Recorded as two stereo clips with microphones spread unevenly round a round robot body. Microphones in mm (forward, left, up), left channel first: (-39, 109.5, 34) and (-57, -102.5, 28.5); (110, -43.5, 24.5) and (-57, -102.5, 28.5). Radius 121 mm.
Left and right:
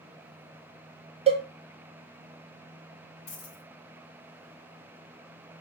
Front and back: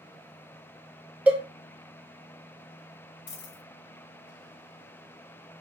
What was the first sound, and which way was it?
A cowbell, 85° right.